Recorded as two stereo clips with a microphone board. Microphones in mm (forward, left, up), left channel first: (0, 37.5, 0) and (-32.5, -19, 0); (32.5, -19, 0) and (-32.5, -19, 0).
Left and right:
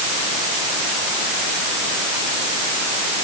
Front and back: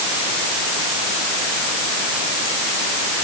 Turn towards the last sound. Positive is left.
No sound to turn to.